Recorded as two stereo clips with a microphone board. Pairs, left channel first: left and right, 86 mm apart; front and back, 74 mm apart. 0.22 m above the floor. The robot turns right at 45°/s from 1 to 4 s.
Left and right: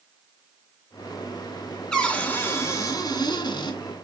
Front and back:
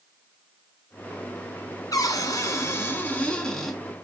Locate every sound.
1.9 s a cupboard door: 10° left, 1.8 m; by 3.8 s 95° left, 1.8 m